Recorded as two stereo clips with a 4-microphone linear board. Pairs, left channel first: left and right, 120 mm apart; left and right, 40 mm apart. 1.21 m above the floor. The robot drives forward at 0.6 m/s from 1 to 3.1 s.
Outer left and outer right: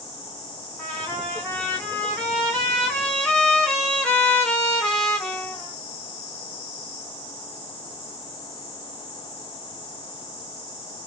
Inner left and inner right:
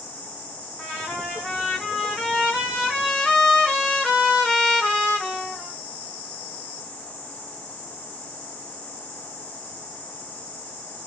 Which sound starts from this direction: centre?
A trumpet, at 0.8 s.